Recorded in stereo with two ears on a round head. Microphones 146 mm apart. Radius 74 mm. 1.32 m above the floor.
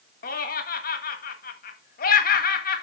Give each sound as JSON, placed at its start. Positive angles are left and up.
{"t": 0.2, "sound": "laughter", "side_deg": 60, "distance_m": 1.7}